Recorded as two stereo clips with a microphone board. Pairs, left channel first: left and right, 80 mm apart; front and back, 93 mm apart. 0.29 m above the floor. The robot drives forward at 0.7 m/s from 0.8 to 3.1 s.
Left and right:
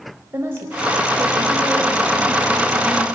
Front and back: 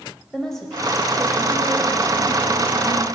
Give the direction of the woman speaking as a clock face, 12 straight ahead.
3 o'clock.